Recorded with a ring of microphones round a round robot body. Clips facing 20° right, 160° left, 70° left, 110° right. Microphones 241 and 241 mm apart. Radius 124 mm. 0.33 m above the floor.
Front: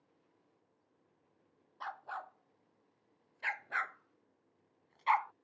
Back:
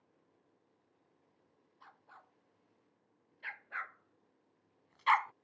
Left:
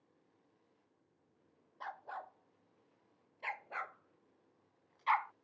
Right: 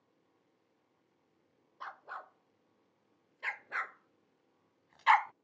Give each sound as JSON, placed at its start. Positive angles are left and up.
{"t": 1.8, "sound": "a dog barking", "azimuth_deg": -35}